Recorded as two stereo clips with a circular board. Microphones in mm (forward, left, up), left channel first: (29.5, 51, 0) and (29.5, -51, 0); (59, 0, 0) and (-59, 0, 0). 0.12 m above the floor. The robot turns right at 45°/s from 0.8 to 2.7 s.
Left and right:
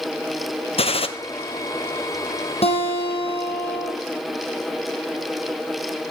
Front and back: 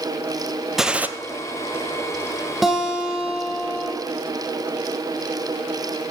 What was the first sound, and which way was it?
A gunshot, 95° left.